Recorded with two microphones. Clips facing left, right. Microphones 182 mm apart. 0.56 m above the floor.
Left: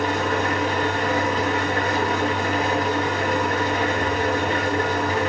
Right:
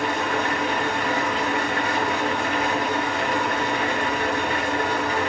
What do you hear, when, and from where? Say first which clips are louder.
0.0 s an engine running: left 2 dB; 40° left (ahead or behind), 4.5 m